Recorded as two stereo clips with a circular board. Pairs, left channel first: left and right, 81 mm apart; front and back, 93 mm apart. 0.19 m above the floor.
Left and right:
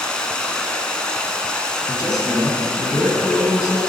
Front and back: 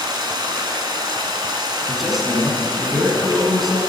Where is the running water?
165° left, 1.1 m.